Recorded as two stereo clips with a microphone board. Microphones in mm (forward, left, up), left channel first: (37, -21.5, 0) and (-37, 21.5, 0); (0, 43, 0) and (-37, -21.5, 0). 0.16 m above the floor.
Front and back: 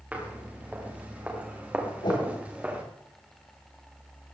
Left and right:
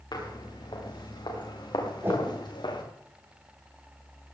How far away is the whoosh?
About 8 m.